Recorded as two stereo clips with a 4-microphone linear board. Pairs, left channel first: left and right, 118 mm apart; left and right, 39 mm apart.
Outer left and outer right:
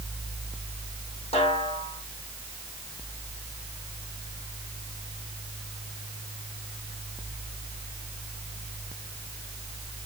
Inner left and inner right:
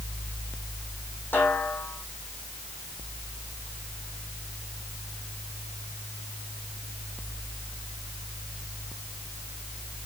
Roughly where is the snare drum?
Left.